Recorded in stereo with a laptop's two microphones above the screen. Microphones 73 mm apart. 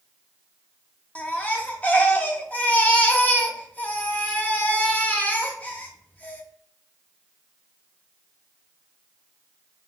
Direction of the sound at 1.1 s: 20° left (ahead or behind).